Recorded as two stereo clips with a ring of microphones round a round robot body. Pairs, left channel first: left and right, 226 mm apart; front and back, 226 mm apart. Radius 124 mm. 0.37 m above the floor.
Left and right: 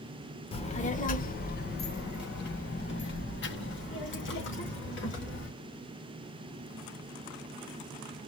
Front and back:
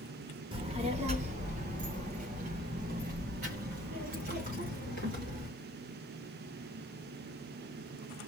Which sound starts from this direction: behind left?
A child speaking, at 0.5 s.